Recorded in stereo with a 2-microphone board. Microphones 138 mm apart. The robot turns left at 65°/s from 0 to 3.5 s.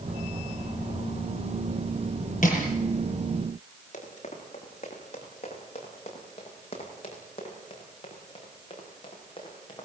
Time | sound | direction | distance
2.4 | crushing | 65° left (ahead or behind) | 7 m
3.9 | running footsteps | 55° left (ahead or behind) | 8.5 m